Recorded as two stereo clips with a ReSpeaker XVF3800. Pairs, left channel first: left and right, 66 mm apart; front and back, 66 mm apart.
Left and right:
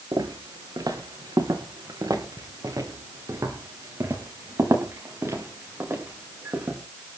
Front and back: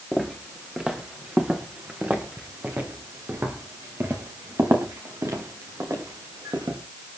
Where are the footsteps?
100° right, 4.5 m; by 6.8 s 145° right, 7 m.